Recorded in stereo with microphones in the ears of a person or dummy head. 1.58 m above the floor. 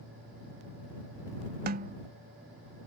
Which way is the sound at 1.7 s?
40° right (ahead or behind).